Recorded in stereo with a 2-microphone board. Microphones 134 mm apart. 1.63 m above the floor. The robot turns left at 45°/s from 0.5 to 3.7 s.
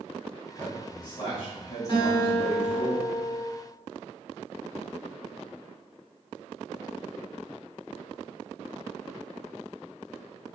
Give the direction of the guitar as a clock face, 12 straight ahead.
7 o'clock.